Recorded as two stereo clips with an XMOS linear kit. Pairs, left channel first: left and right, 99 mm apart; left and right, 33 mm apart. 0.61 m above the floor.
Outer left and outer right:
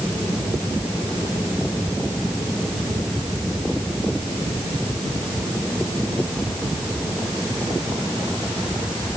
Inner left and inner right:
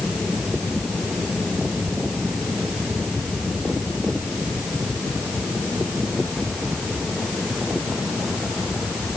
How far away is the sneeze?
I don't hear a sneeze.